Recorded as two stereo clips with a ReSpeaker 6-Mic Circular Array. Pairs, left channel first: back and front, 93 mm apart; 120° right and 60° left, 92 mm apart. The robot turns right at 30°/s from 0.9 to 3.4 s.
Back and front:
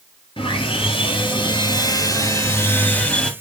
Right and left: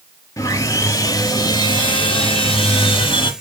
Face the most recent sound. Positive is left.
turn(degrees=-100)